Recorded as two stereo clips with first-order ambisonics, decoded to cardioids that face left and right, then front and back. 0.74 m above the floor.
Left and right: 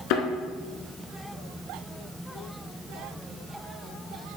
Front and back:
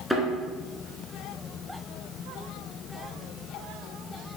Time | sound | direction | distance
0.1 | a thud | 90° left | 1.5 m